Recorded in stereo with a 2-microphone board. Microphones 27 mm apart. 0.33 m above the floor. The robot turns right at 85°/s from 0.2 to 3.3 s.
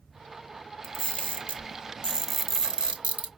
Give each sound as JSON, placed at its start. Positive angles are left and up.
{"t": 0.8, "sound": "a camera shutter", "side_deg": 35, "distance_m": 1.3}